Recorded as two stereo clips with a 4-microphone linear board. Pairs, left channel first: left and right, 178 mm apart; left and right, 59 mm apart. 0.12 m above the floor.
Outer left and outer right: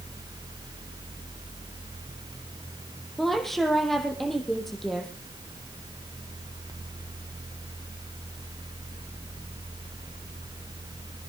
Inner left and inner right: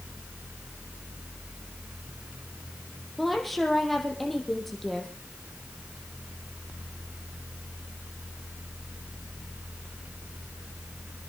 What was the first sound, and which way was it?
A woman speaking, centre (ahead or behind).